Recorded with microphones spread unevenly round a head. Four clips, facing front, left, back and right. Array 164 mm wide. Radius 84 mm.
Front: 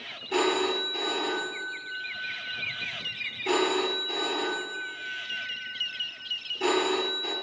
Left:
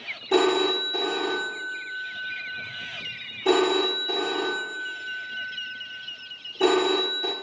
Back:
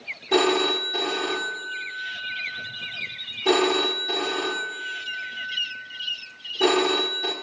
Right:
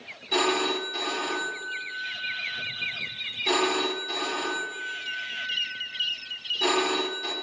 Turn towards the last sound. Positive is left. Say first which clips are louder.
# left 5 dB, back 5 dB
turn(degrees=125)